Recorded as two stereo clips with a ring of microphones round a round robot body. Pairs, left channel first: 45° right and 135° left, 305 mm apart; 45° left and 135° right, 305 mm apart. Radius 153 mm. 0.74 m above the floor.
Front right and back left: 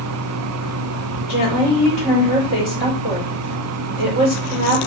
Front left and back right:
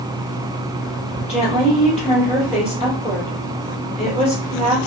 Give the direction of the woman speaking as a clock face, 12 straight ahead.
1 o'clock.